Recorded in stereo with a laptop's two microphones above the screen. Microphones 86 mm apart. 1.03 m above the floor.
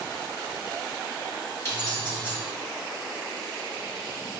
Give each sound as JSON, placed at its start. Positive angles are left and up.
{"t": 1.6, "sound": "keys jangling", "side_deg": 40, "distance_m": 2.0}